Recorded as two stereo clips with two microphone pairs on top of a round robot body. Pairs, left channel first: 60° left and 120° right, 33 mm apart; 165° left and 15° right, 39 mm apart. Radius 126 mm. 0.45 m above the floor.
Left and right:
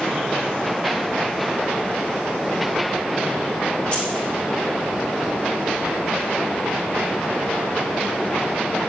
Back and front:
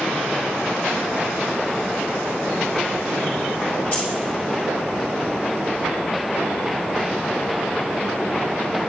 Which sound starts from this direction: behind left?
Keys jangling, at 3.9 s.